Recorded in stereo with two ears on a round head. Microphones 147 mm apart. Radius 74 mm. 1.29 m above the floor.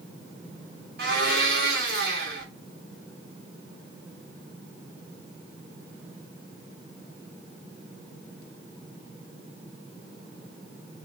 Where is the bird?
I don't hear a bird.